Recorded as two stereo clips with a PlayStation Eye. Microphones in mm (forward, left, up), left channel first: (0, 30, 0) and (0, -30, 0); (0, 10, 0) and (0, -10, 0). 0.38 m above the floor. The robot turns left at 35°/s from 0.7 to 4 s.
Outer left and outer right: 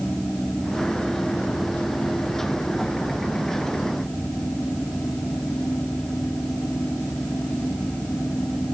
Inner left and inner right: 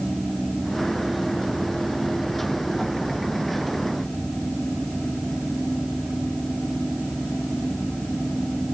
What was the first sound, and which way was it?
Only background noise.